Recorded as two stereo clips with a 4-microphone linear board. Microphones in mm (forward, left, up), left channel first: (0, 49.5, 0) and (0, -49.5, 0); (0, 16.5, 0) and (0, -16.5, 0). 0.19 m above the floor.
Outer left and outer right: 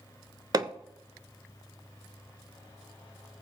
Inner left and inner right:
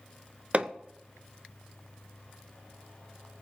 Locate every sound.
0.5 s hammering: 45° right (ahead or behind), 0.7 m